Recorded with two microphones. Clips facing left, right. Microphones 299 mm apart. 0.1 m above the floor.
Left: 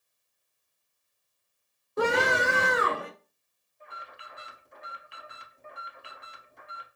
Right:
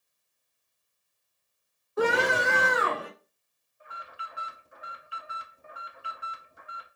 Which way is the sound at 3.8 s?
5° right (ahead or behind).